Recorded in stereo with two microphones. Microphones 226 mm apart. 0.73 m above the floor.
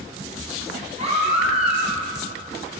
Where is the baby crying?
30° right (ahead or behind), 3.5 m.